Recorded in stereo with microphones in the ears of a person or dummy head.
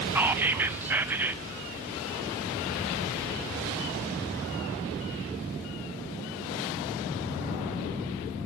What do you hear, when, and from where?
0.1 s whispering: 5° right (ahead or behind), 0.5 m